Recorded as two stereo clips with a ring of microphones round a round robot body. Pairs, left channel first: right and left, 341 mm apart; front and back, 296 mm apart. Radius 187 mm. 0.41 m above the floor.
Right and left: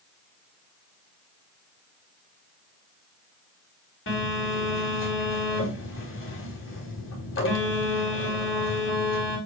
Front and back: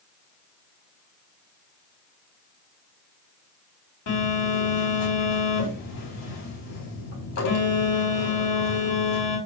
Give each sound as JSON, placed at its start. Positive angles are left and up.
{"t": 4.1, "sound": "a phone buzzing", "azimuth_deg": -35, "distance_m": 4.0}